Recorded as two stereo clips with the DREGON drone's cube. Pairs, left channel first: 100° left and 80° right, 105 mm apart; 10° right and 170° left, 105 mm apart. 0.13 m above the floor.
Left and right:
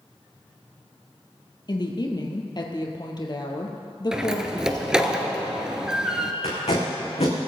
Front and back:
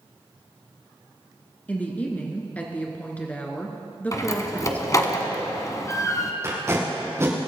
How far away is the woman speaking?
About 2 m.